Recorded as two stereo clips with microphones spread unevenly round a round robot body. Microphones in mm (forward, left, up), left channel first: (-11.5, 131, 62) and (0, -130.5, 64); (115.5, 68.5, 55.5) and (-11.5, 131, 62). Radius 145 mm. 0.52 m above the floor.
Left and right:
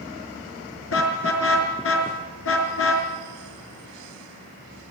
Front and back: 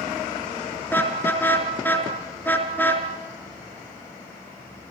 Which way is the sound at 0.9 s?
50° left.